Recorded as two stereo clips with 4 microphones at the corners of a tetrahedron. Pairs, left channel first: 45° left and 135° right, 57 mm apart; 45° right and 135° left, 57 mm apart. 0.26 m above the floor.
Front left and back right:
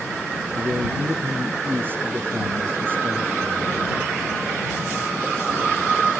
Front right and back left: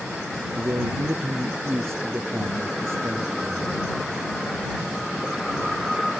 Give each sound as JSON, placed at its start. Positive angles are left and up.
{"t": 0.6, "sound": "a man speaking", "azimuth_deg": 175}